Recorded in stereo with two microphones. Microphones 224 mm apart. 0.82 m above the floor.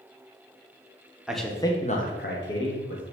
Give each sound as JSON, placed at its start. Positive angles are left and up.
{"t": 1.3, "sound": "a man speaking", "side_deg": -5, "distance_m": 0.5}